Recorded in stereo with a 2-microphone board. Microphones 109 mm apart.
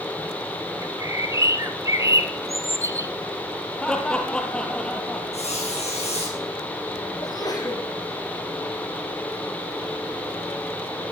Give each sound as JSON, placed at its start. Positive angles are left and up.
{"t": 0.8, "sound": "a bird", "side_deg": -30, "distance_m": 1.5}
{"t": 3.8, "sound": "laughter", "side_deg": 5, "distance_m": 4.0}
{"t": 5.3, "sound": "a squeak", "side_deg": 75, "distance_m": 6.5}
{"t": 7.2, "sound": "a sneeze", "side_deg": 35, "distance_m": 7.5}